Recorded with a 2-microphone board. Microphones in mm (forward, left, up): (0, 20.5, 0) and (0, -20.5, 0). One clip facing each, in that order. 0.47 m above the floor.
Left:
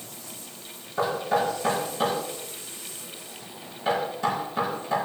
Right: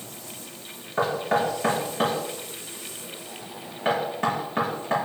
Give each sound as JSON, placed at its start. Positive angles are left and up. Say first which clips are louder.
{"t": 1.0, "sound": "knocking", "louder": "right 1 dB", "side_deg": -45, "distance_m": 5.5}